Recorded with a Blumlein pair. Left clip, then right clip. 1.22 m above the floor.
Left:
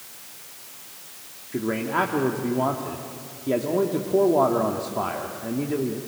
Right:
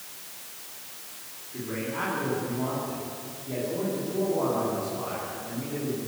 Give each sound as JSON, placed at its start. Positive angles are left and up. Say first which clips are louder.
{"t": 1.5, "sound": "a man speaking", "louder": "left 8 dB", "azimuth_deg": 55, "distance_m": 2.5}